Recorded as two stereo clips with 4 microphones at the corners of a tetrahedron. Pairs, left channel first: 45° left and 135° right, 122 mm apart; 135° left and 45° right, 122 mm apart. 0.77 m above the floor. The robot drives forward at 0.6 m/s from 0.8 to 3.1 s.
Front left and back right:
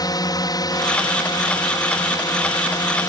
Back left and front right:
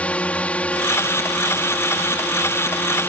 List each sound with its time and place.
0.0 s a drone: 65° left; by 3.1 s 70° left